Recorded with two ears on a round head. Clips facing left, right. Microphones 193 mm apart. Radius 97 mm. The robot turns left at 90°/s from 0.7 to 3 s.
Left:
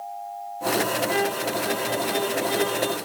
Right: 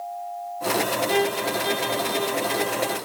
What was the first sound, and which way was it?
A violin, 45° right.